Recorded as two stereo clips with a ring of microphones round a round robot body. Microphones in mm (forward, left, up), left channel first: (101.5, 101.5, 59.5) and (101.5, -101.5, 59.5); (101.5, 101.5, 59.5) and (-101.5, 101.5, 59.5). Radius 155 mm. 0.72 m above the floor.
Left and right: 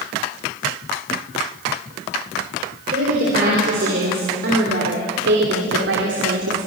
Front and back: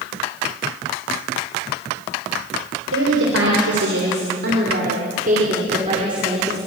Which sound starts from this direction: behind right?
A woman speaking, at 2.9 s.